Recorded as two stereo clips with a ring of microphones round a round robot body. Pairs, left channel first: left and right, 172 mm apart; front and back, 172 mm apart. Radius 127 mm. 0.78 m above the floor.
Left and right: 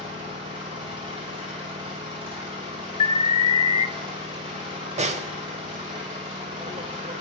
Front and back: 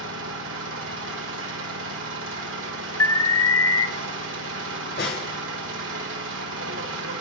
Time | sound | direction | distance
0.0 | an engine running | 160° right | 1.0 m
3.0 | an alarm | 60° left | 0.6 m
5.0 | a snare drum | 45° right | 0.8 m